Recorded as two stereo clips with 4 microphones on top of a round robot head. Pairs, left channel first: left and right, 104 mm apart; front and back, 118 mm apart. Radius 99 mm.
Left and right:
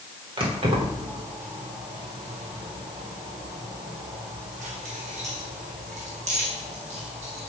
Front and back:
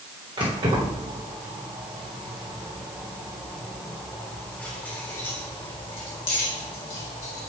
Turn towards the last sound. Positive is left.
turn(degrees=-45)